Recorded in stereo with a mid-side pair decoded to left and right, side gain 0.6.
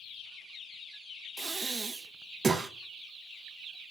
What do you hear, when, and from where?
1.4 s breathing: 20° right, 1.0 m